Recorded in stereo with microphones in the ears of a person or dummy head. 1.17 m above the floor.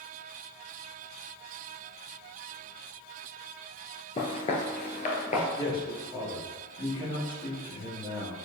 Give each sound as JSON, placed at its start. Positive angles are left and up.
{"t": 4.2, "sound": "footsteps", "side_deg": 30, "distance_m": 1.3}
{"t": 5.6, "sound": "a man speaking", "side_deg": 15, "distance_m": 3.0}